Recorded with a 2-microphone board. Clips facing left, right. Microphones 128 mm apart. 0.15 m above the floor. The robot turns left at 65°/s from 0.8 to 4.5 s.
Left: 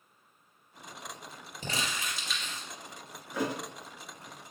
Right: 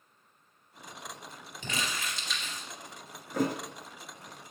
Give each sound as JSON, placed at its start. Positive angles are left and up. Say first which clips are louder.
{"t": 1.6, "sound": "crumpling", "louder": "even", "azimuth_deg": 45, "distance_m": 2.5}
{"t": 3.3, "sound": "a thud", "louder": "right 3 dB", "side_deg": -50, "distance_m": 1.0}